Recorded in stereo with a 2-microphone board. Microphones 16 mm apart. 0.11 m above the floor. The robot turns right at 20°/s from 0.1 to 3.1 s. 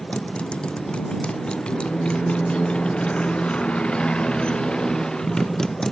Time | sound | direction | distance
0.0 | a motorcycle | 90° left | ?